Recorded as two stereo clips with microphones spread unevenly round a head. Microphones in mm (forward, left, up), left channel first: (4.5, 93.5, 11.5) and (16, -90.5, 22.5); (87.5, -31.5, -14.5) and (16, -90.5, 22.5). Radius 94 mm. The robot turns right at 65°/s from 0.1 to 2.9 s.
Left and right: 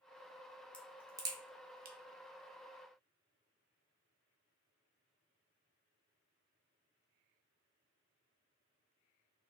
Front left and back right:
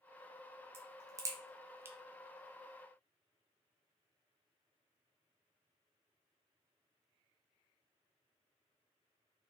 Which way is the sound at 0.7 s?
Straight behind.